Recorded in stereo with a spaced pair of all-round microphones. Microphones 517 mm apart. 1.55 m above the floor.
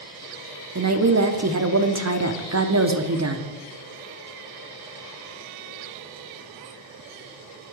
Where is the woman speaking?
30° right (ahead or behind), 0.6 m.